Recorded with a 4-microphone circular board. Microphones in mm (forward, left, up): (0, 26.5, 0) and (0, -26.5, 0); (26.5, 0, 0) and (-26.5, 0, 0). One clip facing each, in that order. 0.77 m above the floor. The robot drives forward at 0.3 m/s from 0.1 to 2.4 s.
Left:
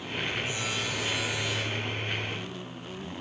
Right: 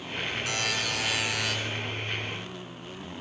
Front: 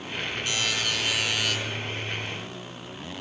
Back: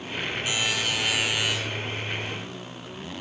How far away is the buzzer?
About 9.5 m.